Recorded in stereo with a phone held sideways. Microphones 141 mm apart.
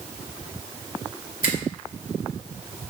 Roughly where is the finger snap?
Left.